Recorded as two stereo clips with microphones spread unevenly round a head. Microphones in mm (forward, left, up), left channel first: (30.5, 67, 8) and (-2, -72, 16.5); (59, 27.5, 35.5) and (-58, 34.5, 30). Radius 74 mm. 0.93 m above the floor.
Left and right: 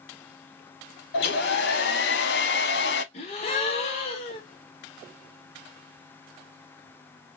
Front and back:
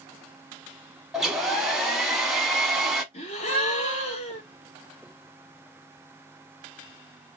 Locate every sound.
1.1 s a hair dryer: 90° left, 1.0 m
3.1 s a gasp: 30° left, 1.3 m